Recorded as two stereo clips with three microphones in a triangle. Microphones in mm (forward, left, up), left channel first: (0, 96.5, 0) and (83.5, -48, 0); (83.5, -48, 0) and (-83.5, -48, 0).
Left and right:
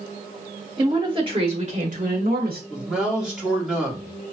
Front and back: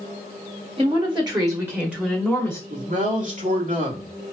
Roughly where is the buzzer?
No buzzer in this recording.